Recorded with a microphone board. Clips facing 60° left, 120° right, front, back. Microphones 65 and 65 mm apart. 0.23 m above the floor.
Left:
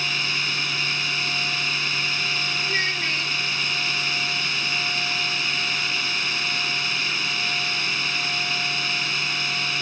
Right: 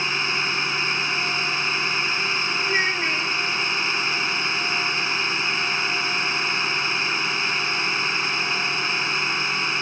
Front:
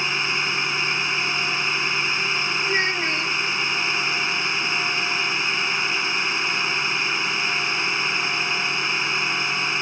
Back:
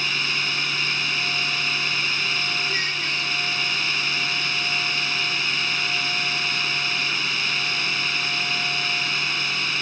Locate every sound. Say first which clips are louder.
0.0 s a drone: right 2 dB, front 2 dB; 60° right
2.6 s a child speaking: right 3 dB, front 4 dB; 50° right